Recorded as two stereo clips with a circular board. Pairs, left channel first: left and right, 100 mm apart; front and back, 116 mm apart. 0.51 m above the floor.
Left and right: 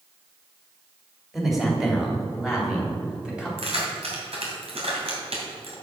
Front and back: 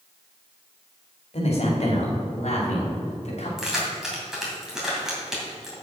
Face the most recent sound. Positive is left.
turn(degrees=-95)